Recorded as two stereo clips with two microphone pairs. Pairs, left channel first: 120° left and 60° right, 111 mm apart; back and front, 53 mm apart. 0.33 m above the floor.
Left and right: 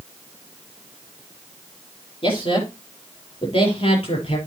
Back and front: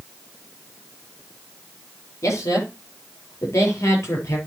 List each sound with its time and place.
2.2 s a man speaking: 160° left, 7 m; by 4.4 s 150° left, 6.5 m